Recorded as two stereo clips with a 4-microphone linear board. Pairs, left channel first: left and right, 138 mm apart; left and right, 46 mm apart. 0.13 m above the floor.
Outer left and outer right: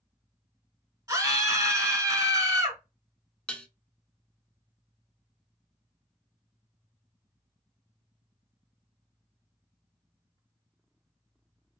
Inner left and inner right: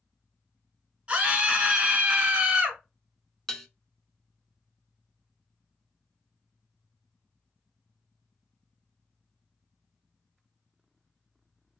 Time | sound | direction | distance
1.1 | a scream | 25° right (ahead or behind) | 1.5 m
3.5 | dishes clattering | 10° left (ahead or behind) | 0.7 m